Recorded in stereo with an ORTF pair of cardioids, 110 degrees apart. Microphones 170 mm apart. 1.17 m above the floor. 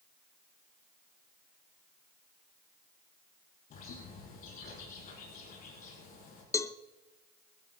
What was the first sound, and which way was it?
A bird, 55° left.